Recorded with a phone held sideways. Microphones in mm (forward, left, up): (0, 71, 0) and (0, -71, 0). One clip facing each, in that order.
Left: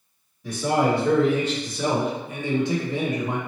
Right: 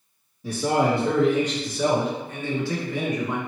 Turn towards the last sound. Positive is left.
turn(degrees=35)  # may be behind; listen again after turning